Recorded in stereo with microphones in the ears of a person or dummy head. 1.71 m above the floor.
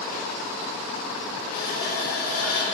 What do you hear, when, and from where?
1.5 s a running tap: 55° left (ahead or behind), 2.0 m